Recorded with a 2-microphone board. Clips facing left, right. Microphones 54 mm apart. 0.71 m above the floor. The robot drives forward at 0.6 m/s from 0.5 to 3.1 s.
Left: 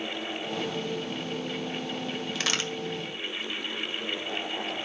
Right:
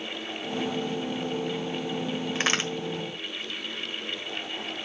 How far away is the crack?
About 1.4 m.